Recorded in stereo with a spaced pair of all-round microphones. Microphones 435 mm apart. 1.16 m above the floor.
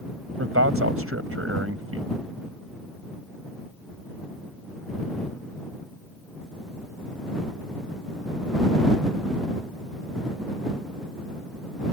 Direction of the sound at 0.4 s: 30° right (ahead or behind).